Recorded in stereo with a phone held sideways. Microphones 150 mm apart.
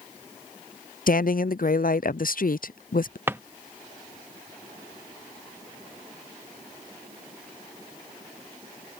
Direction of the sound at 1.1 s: 70° left (ahead or behind).